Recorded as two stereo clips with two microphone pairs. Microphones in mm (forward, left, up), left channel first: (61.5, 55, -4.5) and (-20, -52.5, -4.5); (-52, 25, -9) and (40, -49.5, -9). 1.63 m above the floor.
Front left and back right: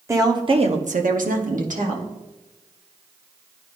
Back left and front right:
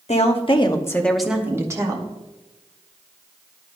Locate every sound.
0.1 s a woman speaking: 165° left, 1.1 m; by 2.1 s 95° right, 1.5 m